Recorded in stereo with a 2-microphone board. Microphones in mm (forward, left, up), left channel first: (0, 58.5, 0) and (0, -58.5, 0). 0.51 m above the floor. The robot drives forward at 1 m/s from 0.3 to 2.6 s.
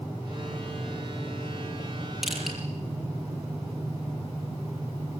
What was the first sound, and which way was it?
Crushing, centre (ahead or behind).